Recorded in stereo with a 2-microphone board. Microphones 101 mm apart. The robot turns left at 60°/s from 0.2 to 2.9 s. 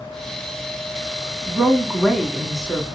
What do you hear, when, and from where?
1.5 s a woman speaking: 15° right (ahead or behind), 1.1 m; by 2.9 s 15° left (ahead or behind), 1.1 m